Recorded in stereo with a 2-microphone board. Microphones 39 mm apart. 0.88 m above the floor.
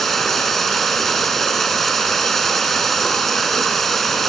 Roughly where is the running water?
Centre.